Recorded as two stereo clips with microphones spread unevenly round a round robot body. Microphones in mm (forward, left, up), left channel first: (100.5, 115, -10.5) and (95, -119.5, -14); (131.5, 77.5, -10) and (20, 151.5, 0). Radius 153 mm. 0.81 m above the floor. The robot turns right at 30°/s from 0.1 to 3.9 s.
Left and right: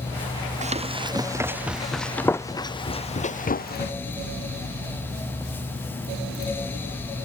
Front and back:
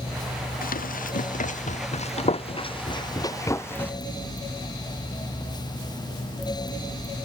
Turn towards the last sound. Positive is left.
turn(degrees=45)